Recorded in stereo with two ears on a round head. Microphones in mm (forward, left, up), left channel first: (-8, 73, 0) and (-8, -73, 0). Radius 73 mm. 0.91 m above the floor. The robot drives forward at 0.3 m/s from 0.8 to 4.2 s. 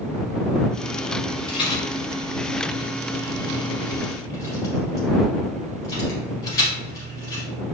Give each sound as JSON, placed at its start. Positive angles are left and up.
{"t": 1.5, "sound": "a rattle", "side_deg": 30, "distance_m": 2.0}